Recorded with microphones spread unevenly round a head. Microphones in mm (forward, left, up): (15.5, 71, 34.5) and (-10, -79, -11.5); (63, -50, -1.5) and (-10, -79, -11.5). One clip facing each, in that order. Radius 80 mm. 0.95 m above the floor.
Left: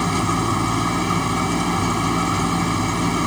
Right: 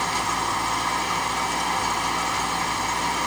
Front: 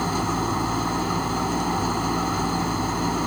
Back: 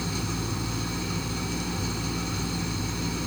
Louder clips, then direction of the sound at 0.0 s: Left 6 dB, front 8 dB; 85° left.